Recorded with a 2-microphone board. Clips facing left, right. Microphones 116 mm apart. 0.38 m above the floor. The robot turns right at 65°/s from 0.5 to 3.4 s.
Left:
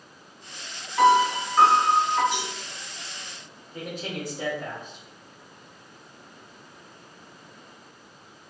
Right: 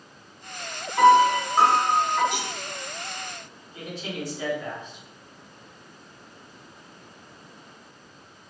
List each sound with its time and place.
1.0 s a piano: 70° right, 1.0 m; by 2.2 s 10° left, 1.0 m
2.3 s a cowbell: 65° right (ahead or behind), 1.6 m
3.7 s a man speaking: 45° left (ahead or behind), 1.3 m